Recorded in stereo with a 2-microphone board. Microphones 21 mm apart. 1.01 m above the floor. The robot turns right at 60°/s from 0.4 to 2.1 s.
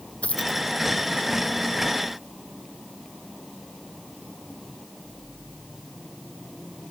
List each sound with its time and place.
0.2 s a dropped coin: 85° left; by 0.6 s 80° left